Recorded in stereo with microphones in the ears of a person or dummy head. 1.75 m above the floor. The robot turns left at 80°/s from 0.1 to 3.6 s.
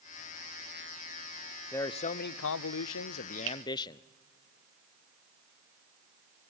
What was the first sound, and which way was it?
A man speaking, 170° left.